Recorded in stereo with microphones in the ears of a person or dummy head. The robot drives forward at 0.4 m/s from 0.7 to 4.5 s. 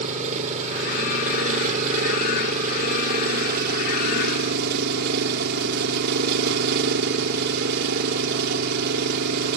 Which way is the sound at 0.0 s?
40° right (ahead or behind).